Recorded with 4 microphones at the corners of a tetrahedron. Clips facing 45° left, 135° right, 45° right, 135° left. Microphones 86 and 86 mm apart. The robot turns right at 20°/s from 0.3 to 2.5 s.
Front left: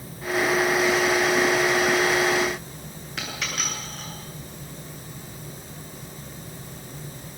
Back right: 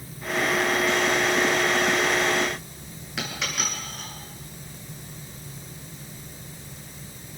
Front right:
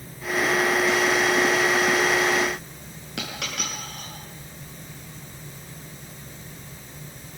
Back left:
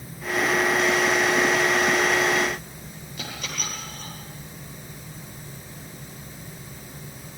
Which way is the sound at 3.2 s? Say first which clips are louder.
Back right 1 dB, front right 3 dB; 45° right.